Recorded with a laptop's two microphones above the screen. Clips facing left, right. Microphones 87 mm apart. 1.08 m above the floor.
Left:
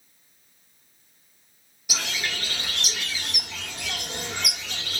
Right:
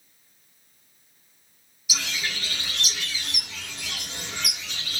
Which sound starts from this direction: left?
A bird, at 1.9 s.